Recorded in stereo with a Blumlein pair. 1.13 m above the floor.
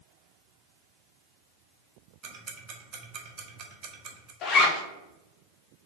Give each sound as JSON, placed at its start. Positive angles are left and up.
{"t": 2.2, "sound": "ticking", "azimuth_deg": -35, "distance_m": 1.0}
{"t": 4.4, "sound": "a zipper", "azimuth_deg": 30, "distance_m": 1.0}